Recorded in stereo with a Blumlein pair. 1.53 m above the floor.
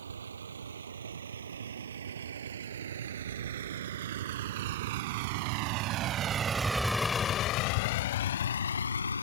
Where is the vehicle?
70° right; by 9.2 s 80° left.